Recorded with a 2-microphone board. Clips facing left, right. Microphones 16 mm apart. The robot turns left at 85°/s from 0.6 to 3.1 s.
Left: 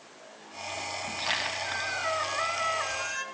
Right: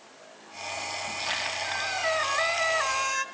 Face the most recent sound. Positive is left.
turn(degrees=-135)